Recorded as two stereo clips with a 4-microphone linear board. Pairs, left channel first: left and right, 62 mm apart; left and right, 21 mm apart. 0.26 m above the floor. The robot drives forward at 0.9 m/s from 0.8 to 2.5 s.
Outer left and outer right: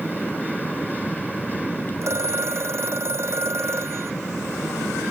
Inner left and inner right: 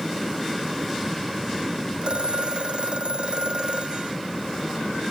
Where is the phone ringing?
45° right (ahead or behind).